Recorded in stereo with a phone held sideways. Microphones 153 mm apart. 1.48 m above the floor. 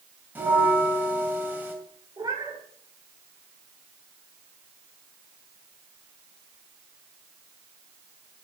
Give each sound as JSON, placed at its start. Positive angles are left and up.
{"t": 0.3, "sound": "a bell", "side_deg": -10, "distance_m": 2.5}
{"t": 2.2, "sound": "a cat meowing", "side_deg": -25, "distance_m": 2.5}